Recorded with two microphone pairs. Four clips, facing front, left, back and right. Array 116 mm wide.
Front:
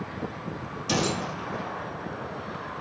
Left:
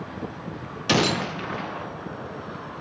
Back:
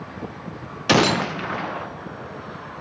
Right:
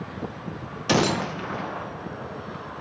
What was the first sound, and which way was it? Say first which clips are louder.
A gunshot: right 1 dB, back 9 dB; 175° left.